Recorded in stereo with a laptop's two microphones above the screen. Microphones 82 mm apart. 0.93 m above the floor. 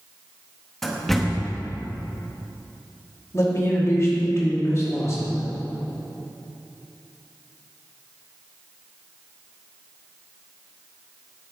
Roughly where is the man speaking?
Left.